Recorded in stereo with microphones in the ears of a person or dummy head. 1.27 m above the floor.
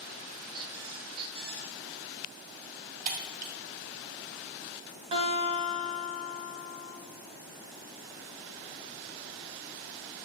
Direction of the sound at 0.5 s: 30° right (ahead or behind).